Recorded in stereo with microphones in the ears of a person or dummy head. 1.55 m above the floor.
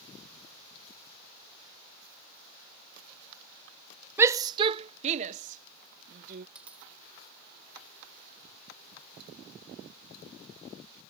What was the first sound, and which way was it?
A shout, 10° right (ahead or behind).